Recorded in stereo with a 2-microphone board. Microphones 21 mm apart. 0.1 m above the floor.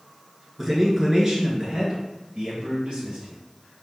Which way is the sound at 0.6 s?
5° right (ahead or behind).